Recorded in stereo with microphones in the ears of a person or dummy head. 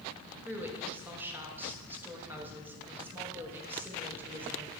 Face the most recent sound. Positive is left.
turn(degrees=-10)  # may be behind; listen again after turning